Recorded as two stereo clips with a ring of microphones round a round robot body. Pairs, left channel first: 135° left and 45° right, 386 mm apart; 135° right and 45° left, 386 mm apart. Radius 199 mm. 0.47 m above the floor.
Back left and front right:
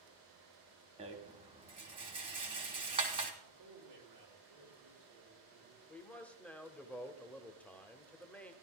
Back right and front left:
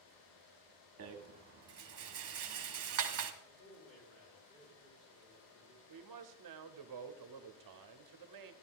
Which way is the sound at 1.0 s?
25° left.